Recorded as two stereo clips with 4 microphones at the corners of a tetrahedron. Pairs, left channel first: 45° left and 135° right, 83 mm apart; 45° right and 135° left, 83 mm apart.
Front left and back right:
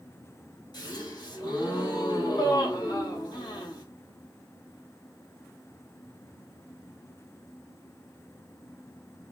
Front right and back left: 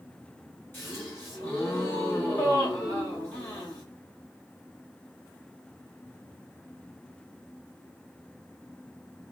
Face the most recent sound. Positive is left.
turn(degrees=15)